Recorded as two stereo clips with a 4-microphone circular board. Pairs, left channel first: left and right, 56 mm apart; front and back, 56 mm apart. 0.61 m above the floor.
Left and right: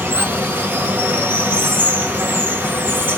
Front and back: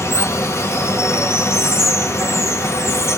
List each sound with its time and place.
0.0 s running water: 35° right, 1.9 m